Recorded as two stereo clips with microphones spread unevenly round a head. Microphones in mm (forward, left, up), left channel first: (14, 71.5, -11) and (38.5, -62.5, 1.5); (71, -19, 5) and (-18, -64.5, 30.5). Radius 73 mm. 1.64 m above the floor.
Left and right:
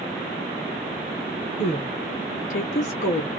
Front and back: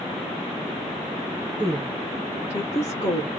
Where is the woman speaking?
160° left, 0.8 m; by 3.3 s 65° left, 0.8 m.